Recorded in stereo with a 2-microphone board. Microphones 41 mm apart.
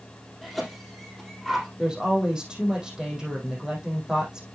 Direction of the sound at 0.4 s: 5° left (ahead or behind).